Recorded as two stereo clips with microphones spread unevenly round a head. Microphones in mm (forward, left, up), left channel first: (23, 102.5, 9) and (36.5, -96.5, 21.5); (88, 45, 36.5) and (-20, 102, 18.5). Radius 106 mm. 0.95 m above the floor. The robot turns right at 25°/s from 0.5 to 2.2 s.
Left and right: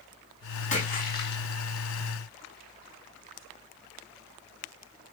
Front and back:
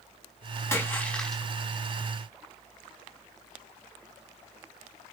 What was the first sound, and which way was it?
A splash, 40° left.